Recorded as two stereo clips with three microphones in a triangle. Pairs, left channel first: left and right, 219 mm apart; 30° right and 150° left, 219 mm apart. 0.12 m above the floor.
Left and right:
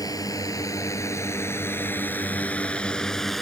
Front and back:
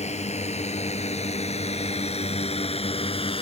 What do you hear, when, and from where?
0.0 s a drone: 20° left; by 3.4 s straight ahead